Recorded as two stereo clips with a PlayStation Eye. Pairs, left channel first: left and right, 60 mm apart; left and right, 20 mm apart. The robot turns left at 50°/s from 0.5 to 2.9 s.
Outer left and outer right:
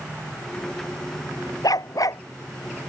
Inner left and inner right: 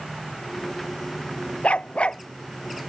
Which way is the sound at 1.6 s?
90° left.